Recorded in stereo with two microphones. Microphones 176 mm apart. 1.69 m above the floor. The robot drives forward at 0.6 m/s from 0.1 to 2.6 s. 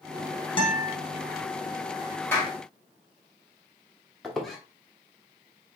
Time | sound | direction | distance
0.6 | a guitar | 30° left (ahead or behind) | 1.0 m
2.3 | a clap | 10° left (ahead or behind) | 2 m
4.2 | a squeak | centre (ahead or behind) | 1.0 m